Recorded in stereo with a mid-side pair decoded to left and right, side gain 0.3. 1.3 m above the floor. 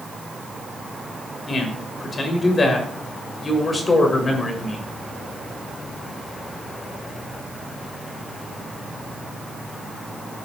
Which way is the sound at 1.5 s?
55° left.